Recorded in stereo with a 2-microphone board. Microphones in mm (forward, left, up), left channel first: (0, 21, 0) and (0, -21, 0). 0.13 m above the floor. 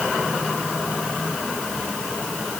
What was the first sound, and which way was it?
Only background noise.